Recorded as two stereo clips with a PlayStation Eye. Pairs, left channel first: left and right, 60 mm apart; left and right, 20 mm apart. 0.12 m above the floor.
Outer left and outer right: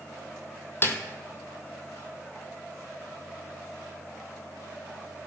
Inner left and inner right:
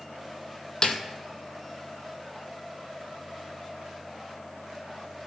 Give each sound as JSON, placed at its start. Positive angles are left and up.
{"t": 0.8, "sound": "a snare drum", "side_deg": 35, "distance_m": 1.2}